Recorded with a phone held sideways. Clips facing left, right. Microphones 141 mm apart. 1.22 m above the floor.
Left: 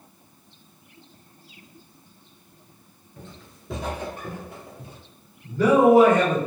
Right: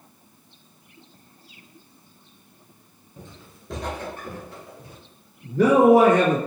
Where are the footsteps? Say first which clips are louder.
Even; 15° right (ahead or behind), 1.2 m; by 5.0 s 25° left (ahead or behind), 2 m.